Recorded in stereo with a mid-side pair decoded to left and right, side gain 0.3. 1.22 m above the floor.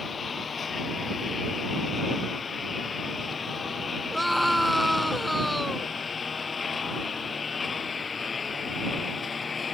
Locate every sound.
0.0 s a lawn mower: 55° left; by 9.7 s 50° left
4.1 s a scream: straight ahead